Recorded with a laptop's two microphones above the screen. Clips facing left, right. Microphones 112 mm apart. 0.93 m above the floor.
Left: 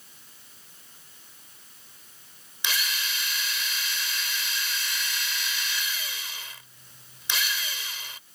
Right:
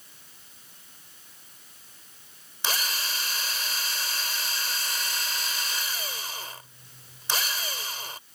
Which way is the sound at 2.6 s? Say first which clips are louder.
Right 1 dB; 40° right (ahead or behind).